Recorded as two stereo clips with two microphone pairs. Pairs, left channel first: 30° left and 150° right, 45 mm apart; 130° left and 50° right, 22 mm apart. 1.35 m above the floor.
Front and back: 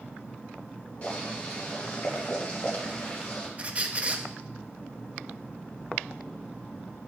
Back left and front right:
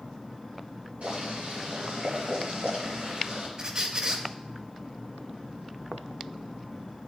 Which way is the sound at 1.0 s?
35° right.